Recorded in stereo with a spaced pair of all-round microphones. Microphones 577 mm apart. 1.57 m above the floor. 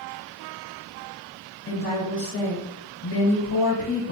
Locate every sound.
1.7 s a woman speaking: 40° left (ahead or behind), 1.1 m